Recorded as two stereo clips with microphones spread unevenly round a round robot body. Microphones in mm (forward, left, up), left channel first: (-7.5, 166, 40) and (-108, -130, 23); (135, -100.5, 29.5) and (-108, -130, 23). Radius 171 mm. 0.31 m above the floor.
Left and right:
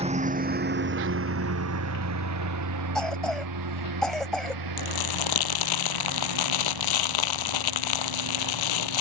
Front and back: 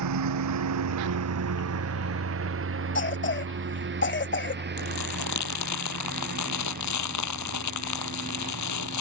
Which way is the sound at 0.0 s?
Straight behind.